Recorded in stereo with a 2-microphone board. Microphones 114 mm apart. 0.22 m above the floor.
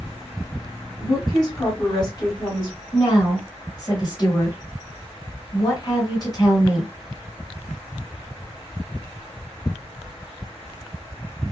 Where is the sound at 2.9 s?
35° left (ahead or behind), 1.7 m.